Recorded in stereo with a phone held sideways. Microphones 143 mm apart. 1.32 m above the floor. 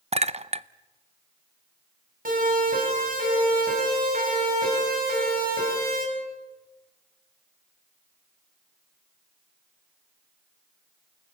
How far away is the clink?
About 0.5 m.